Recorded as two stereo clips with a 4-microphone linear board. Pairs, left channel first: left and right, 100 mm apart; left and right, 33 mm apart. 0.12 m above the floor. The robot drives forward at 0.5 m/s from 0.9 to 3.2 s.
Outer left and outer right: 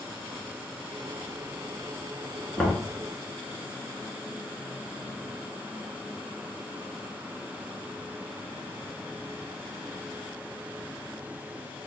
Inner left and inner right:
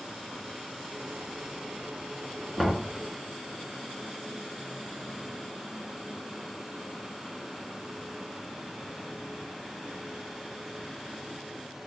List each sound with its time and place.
2.6 s knocking: 10° left (ahead or behind), 0.8 m